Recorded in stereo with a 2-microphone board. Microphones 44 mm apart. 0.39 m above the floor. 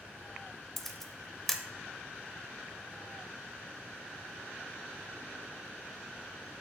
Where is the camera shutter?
5° left (ahead or behind), 1.0 m.